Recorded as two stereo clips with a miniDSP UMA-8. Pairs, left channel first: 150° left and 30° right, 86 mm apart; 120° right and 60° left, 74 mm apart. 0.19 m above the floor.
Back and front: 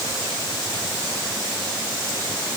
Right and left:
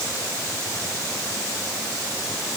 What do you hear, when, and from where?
Only background noise.